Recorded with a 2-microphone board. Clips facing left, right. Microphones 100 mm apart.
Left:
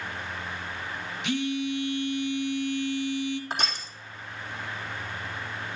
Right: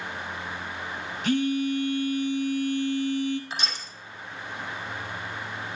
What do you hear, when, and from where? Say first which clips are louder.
1.2 s a phone buzzing: right 4 dB; 45° right (ahead or behind), 1.7 m
3.5 s crushing: left 3 dB; 45° left (ahead or behind), 3 m